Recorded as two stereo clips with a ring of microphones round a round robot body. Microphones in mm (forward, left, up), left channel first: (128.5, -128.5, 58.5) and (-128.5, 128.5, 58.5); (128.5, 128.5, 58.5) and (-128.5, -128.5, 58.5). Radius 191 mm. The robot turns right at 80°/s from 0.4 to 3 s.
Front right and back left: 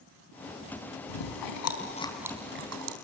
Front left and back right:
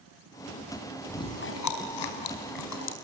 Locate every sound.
1.1 s chewing: 40° right, 4 m; by 3.0 s 105° left, 4 m